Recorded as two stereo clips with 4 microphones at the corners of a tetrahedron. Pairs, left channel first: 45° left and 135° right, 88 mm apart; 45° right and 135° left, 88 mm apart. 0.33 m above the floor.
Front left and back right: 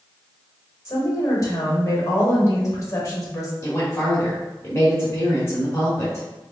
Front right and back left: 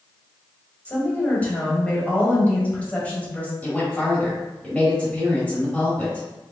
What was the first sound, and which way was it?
A woman speaking, 20° left.